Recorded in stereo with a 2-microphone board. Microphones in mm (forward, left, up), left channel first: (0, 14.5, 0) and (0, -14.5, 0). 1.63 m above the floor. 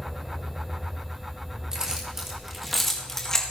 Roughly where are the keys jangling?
Right.